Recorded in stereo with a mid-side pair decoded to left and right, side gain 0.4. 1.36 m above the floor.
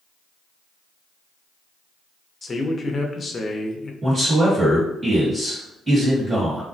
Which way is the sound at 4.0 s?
30° right.